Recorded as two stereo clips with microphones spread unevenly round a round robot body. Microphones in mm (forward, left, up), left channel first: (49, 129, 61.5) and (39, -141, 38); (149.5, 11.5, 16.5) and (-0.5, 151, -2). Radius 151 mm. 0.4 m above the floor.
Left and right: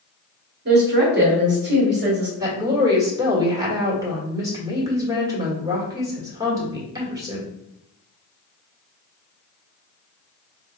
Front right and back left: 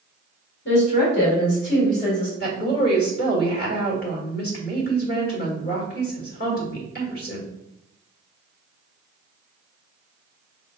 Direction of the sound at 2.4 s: 25° right.